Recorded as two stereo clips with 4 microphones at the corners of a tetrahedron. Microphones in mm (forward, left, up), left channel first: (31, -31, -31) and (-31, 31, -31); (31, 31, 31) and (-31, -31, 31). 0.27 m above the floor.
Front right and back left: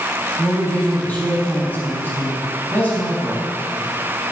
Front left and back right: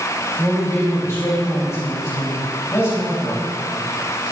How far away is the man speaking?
About 1.8 m.